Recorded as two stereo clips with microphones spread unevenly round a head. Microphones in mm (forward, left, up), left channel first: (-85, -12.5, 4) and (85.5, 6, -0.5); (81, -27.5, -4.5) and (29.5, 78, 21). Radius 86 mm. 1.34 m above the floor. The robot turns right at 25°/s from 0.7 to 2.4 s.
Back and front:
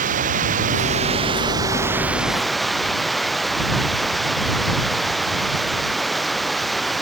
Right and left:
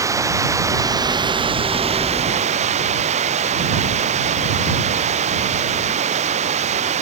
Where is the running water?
55° left; by 7.0 s 95° left.